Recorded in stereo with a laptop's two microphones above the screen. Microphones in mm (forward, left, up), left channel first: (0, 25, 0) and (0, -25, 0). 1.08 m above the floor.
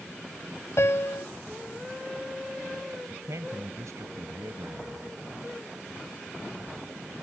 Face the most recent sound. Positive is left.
turn(degrees=-85)